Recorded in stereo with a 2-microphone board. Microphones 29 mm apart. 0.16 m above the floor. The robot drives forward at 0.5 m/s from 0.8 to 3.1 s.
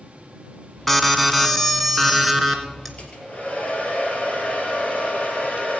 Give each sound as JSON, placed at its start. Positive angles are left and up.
{"t": 0.9, "sound": "an alarm", "side_deg": 5, "distance_m": 0.9}
{"t": 3.0, "sound": "a hair dryer", "side_deg": 45, "distance_m": 4.0}